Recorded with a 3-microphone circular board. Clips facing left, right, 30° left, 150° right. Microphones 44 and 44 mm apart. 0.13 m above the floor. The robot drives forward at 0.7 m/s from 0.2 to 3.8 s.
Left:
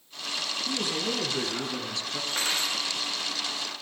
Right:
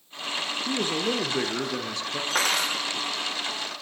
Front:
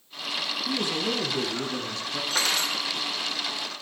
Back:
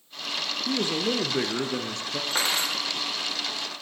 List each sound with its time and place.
0.7 s a man speaking: 125° right, 1.9 m; by 2.2 s 150° right, 2.5 m
2.3 s cutlery clinking: 85° right, 4 m; by 2.8 s 90° right, 4 m